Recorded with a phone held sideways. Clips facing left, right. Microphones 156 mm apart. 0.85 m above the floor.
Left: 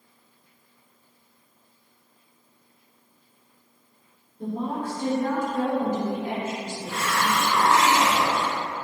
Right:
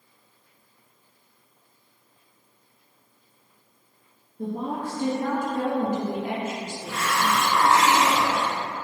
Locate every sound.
4.4 s a woman speaking: 50° right (ahead or behind), 1.2 m
6.9 s a hiss: 30° left (ahead or behind), 1.6 m